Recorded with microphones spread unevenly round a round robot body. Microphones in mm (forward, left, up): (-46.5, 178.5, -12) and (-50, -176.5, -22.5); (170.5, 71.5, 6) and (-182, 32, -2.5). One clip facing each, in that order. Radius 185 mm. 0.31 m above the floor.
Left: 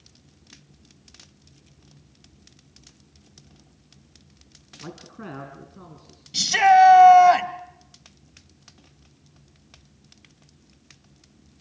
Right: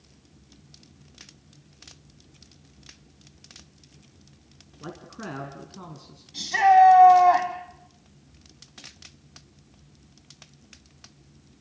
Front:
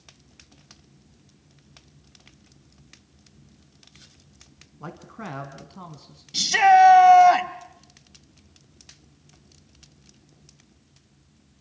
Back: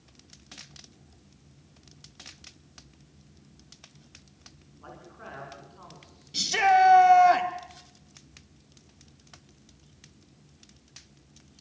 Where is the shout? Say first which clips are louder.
Left 1 dB, front 6 dB; 80° left, 1.8 m.